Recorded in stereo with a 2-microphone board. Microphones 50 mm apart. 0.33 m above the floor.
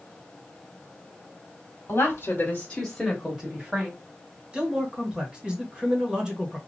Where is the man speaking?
20° right (ahead or behind), 1.2 m.